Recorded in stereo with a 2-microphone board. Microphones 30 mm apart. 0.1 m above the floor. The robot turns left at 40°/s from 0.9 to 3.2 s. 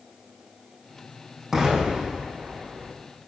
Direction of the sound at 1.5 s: 20° right (ahead or behind).